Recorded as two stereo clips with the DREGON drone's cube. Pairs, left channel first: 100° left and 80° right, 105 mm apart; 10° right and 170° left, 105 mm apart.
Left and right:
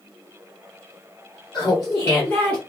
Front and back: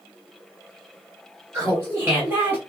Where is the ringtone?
I don't hear a ringtone.